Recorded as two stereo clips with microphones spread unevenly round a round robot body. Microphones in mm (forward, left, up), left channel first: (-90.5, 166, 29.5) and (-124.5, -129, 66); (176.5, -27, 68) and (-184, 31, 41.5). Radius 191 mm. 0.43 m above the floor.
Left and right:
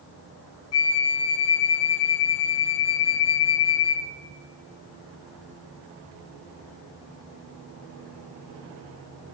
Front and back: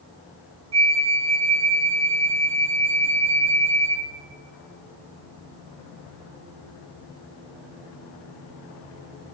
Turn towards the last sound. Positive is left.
turn(degrees=100)